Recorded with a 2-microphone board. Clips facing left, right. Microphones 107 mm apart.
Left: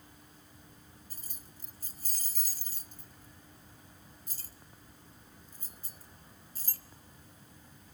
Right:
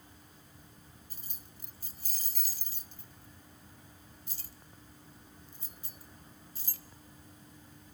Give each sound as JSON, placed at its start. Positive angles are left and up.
{"t": 1.1, "sound": "keys jangling", "side_deg": 45, "distance_m": 1.0}